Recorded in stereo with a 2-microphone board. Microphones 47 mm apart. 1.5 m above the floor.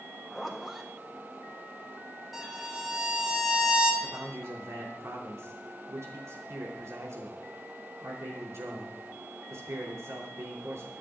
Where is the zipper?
5° right (ahead or behind), 1.9 m.